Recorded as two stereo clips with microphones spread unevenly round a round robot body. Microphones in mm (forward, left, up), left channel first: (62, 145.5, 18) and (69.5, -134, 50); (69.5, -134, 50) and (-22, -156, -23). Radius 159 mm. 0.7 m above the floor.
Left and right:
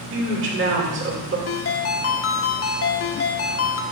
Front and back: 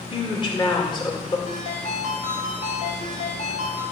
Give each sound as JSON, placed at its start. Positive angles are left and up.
{"t": 0.1, "sound": "a woman speaking", "azimuth_deg": -40, "distance_m": 3.0}
{"t": 1.5, "sound": "a ringtone", "azimuth_deg": 50, "distance_m": 0.9}